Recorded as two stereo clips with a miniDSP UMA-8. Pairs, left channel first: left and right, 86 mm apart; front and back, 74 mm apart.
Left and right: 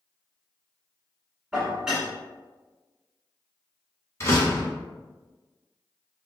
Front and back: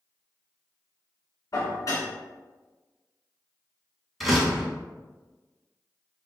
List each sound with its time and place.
1.5 s dishes clattering: 10° right, 1.4 m
4.2 s a door slam: 90° left, 1.1 m